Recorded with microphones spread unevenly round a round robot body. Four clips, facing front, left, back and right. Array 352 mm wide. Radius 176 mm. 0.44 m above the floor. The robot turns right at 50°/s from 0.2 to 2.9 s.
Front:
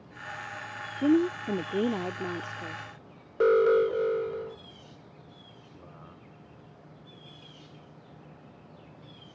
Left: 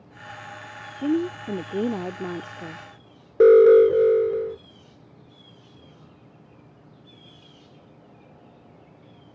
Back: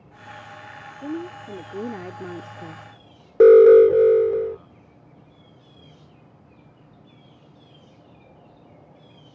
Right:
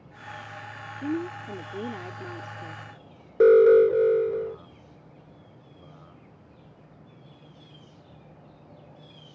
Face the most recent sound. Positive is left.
turn(degrees=155)